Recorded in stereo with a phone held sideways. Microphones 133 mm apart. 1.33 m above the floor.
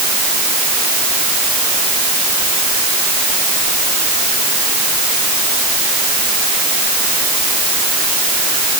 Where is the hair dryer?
No hair dryer in this recording.